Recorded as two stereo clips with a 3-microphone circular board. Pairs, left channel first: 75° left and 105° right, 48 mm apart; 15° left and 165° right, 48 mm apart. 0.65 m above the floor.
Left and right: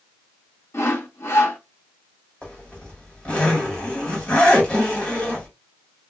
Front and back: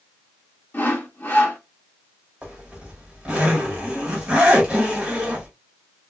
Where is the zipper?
135° left, 1.6 m.